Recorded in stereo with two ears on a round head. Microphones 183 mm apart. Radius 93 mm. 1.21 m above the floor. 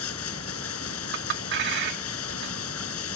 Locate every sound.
0.0 s running water: 85° left
1.1 s a clink: 60° right (ahead or behind)